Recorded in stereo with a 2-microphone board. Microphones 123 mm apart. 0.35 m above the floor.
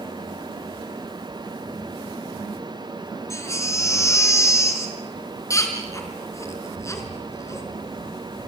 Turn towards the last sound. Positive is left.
turn(degrees=25)  # may be behind; listen again after turning